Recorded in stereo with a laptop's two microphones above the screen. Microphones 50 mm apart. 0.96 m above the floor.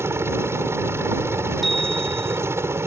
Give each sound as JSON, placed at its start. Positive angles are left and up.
{"t": 0.0, "sound": "a helicopter", "side_deg": -60}
{"t": 1.6, "sound": "a bicycle bell", "side_deg": 5}